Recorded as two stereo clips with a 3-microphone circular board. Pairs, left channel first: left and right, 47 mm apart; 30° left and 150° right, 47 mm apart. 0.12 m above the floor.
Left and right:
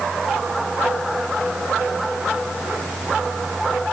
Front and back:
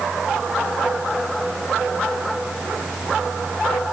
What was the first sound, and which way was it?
Only background noise.